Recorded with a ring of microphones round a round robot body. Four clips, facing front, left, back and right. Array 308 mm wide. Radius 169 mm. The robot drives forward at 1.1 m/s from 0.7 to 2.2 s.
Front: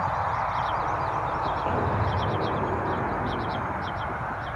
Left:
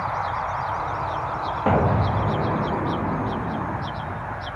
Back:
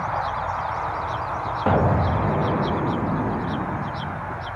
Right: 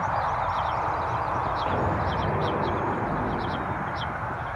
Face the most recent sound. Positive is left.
turn(degrees=160)